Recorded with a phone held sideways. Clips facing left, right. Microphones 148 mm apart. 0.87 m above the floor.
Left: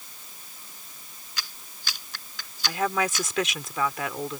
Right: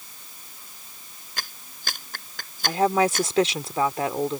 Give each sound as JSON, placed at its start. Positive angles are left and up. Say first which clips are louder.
{"t": 1.4, "sound": "a clap", "louder": "right 3 dB", "side_deg": -50}
{"t": 2.7, "sound": "a woman speaking", "louder": "right 6 dB", "side_deg": -35}